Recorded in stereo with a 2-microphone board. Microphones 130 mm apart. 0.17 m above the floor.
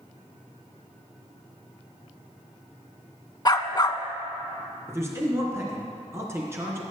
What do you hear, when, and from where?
3.5 s a dog barking: 35° left (ahead or behind), 0.5 m
4.9 s a man speaking: 20° right (ahead or behind), 2 m